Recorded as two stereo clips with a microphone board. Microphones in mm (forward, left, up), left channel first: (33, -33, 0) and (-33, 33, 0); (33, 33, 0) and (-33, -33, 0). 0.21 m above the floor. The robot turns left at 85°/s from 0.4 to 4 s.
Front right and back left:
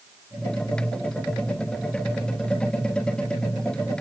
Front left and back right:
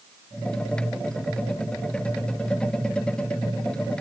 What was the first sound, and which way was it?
Only background noise.